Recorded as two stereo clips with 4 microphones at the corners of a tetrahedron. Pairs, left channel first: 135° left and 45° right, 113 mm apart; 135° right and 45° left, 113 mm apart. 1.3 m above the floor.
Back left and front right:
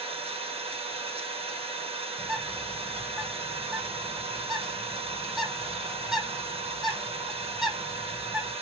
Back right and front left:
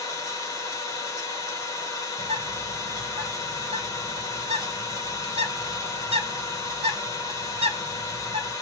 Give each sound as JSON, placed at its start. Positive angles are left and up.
{"t": 0.0, "sound": "an engine running", "azimuth_deg": -75, "distance_m": 1.4}
{"t": 2.2, "sound": "a bird", "azimuth_deg": 40, "distance_m": 2.0}